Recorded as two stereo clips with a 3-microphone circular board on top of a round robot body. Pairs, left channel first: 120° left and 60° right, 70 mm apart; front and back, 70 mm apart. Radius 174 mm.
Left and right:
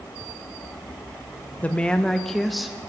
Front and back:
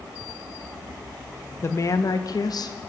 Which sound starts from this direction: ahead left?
A woman speaking, at 1.6 s.